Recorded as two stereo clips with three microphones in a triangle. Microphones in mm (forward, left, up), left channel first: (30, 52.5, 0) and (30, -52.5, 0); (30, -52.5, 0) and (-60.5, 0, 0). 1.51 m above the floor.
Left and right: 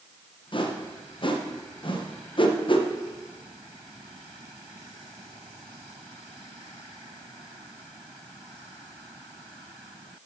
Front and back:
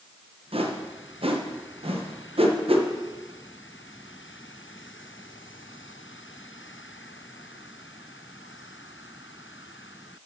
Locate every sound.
0.5 s a whoosh: 125° left, 1.2 m